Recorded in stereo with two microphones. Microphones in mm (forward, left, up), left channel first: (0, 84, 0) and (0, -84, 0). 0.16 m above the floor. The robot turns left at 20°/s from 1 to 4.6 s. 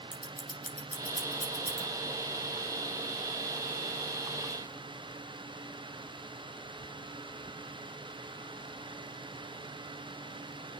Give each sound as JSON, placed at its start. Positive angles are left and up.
{"t": 0.1, "sound": "scissors", "side_deg": 50, "distance_m": 7.0}